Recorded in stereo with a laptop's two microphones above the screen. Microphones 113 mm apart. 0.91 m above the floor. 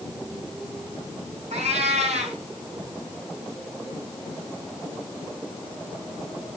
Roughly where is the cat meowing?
Right.